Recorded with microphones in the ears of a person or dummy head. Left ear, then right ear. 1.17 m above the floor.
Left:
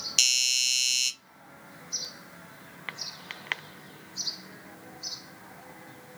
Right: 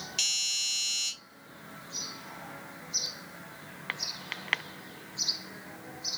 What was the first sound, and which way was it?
A doorbell, 30° left (ahead or behind).